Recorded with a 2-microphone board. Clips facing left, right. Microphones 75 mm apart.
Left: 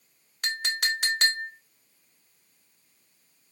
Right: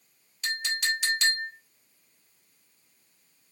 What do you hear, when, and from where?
0.4 s a clink: 55° left (ahead or behind), 1.0 m